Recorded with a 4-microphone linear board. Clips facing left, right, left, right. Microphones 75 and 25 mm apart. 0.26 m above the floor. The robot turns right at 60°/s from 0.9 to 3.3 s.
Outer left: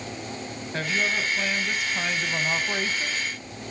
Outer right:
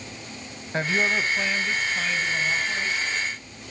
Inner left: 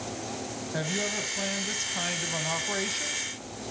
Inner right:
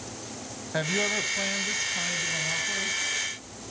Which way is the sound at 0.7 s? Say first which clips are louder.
Outer right 3 dB, inner right 4 dB; 40° right.